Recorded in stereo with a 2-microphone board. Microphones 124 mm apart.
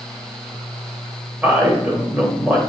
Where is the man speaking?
10° right (ahead or behind), 1.8 m.